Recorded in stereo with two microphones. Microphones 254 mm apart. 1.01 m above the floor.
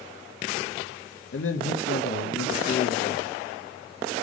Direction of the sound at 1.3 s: 55° left (ahead or behind).